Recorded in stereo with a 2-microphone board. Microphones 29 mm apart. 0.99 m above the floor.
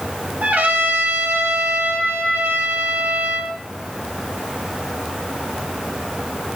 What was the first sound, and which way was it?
A trumpet, 65° right (ahead or behind).